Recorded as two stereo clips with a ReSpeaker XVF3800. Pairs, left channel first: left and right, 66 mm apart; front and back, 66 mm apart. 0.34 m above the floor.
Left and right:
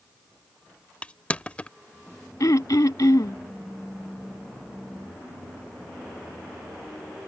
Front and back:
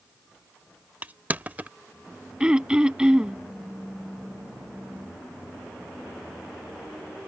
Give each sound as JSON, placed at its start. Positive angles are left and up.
{"t": 1.0, "sound": "crushing", "azimuth_deg": 140}
{"t": 2.4, "sound": "throat clearing", "azimuth_deg": 105}